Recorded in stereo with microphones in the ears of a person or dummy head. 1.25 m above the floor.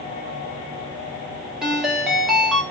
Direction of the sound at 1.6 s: Centre (ahead or behind).